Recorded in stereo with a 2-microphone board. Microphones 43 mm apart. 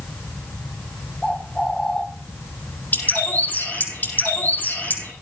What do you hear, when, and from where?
1.2 s a bird: 15° left (ahead or behind), 2 m
2.9 s a bird: 45° left (ahead or behind), 7.5 m